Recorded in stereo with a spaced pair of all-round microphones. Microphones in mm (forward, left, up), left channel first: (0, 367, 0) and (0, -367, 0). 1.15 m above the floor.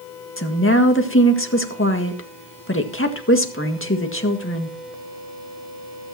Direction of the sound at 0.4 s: 15° left (ahead or behind).